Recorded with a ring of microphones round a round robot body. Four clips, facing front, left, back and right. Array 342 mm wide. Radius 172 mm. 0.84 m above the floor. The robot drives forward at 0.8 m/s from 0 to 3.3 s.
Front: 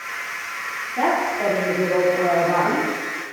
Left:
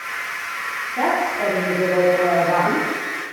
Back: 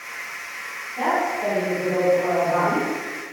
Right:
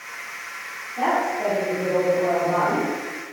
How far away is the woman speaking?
About 6.5 m.